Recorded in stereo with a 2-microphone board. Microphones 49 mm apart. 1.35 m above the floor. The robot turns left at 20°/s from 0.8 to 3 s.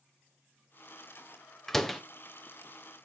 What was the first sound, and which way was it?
A door slam, 10° left (ahead or behind).